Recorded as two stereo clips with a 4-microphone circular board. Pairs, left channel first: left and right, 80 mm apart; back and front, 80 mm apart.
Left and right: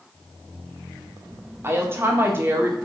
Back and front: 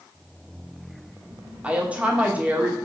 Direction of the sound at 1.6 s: 60° right.